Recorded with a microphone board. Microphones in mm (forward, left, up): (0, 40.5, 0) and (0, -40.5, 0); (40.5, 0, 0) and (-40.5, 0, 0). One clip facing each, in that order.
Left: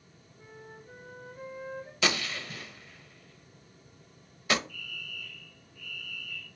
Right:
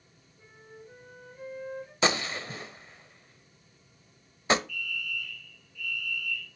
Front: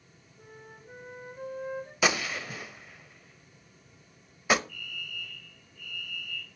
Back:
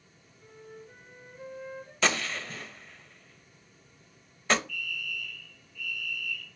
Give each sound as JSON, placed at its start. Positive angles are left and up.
{"t": 0.4, "sound": "a flute", "azimuth_deg": 30, "distance_m": 2.5}
{"t": 2.0, "sound": "a gunshot", "azimuth_deg": -75, "distance_m": 0.6}
{"t": 4.7, "sound": "a fire alarm", "azimuth_deg": 40, "distance_m": 3.0}